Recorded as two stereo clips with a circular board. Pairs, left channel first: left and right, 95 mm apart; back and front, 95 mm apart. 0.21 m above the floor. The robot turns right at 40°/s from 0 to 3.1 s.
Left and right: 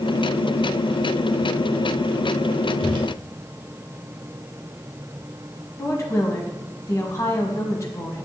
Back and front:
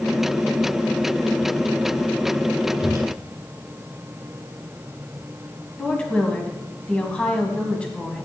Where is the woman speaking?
110° left, 1.2 m.